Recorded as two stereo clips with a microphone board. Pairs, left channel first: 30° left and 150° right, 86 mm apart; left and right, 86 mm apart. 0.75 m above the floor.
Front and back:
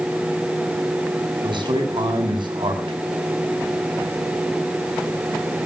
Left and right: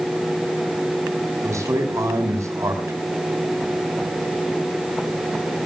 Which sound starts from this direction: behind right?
A man speaking, at 1.4 s.